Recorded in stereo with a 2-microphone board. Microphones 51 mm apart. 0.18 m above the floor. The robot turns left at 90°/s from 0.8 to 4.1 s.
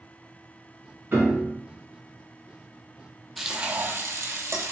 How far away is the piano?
About 1.8 m.